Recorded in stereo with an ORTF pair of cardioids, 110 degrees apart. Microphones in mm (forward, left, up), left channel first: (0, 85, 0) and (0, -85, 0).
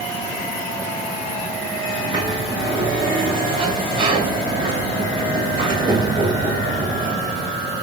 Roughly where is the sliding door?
Ahead right.